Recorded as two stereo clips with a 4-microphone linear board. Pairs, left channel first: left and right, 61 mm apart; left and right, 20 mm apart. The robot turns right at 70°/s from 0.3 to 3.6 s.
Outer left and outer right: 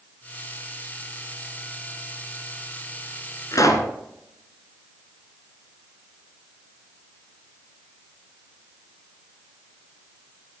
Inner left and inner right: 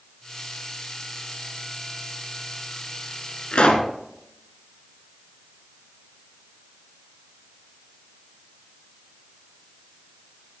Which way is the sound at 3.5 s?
70° left (ahead or behind).